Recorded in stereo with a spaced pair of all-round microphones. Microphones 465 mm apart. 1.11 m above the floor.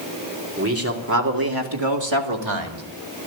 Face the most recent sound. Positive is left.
turn(degrees=-75)  # may be behind; listen again after turning